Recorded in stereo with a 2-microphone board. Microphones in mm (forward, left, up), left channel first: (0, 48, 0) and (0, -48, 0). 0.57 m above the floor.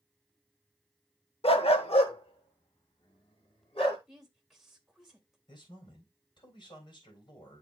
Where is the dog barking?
80° left, 0.7 m.